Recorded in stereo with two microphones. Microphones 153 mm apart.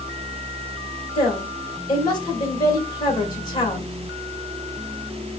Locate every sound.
1.1 s a woman speaking: 30° left (ahead or behind), 2.5 m